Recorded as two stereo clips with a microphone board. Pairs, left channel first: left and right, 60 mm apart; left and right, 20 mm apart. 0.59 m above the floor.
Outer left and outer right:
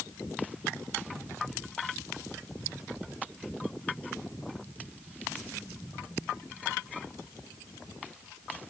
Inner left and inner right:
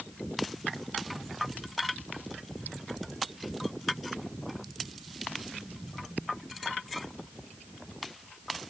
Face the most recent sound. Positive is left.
No sound to turn to.